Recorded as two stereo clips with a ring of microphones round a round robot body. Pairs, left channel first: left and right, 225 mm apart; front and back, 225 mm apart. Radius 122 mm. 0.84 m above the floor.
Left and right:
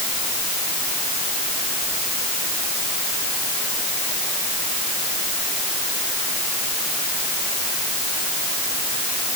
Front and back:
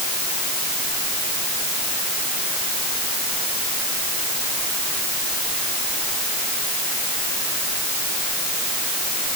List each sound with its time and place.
Only background noise.